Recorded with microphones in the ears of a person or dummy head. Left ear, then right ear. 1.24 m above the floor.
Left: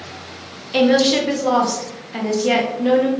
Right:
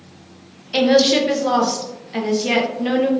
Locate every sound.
0.7 s a woman speaking: 10° right (ahead or behind), 0.6 m